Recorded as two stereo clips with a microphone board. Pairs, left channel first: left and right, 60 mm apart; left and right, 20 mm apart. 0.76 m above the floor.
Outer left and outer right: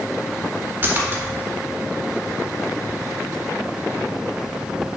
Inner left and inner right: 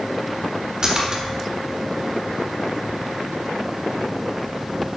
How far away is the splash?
About 1.5 m.